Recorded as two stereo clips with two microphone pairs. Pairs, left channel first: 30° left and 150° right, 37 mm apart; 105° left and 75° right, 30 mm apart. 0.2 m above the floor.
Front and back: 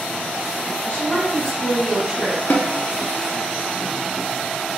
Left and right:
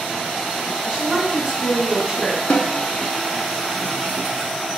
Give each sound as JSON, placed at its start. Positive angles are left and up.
{"t": 0.8, "sound": "a woman speaking", "azimuth_deg": -5, "distance_m": 1.4}
{"t": 2.5, "sound": "a snare drum", "azimuth_deg": 60, "distance_m": 0.5}